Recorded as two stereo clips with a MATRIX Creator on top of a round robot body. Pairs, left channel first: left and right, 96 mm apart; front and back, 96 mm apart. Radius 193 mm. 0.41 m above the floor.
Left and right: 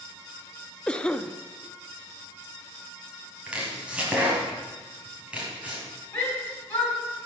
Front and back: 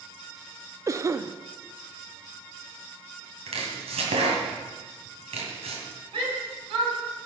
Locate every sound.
0.9 s a cough: 160° left, 0.8 m
3.5 s chopping: 170° right, 2 m
6.1 s a shout: 160° left, 4 m